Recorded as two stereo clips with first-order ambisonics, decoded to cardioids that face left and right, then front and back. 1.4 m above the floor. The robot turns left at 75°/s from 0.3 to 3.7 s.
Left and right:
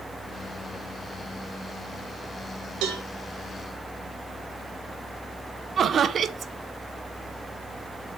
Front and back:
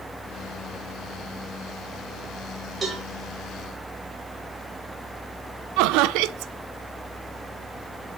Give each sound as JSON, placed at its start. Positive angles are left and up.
{"t": 2.8, "sound": "a cowbell", "azimuth_deg": -110, "distance_m": 2.5}
{"t": 5.8, "sound": "laughter", "azimuth_deg": -155, "distance_m": 0.6}